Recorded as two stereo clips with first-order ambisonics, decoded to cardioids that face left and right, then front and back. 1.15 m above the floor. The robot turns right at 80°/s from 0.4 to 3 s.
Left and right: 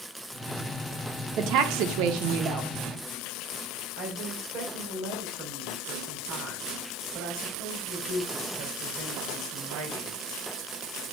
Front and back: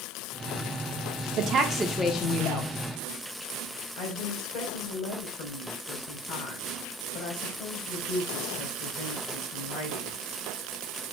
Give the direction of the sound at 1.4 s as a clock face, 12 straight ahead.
5 o'clock.